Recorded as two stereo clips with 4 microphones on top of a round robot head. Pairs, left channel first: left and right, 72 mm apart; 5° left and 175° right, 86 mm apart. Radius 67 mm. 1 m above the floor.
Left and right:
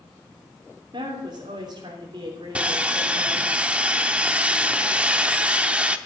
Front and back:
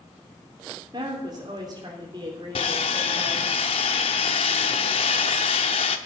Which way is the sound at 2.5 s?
20° right.